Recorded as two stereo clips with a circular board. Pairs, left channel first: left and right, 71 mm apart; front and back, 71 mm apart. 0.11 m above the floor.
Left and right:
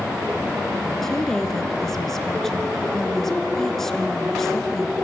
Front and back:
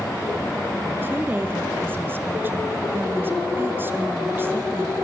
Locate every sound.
1.0 s a woman speaking: 170° left, 1.5 m